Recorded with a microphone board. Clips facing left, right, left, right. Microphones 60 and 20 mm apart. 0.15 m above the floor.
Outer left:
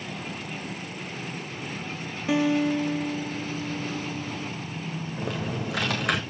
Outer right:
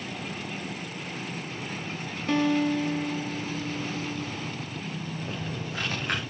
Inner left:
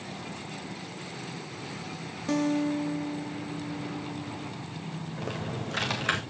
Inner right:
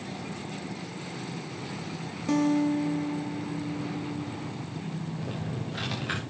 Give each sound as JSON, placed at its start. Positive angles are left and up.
{"t": 2.3, "sound": "a guitar", "side_deg": 10, "distance_m": 0.9}
{"t": 5.2, "sound": "typing on a keyboard", "side_deg": 70, "distance_m": 3.0}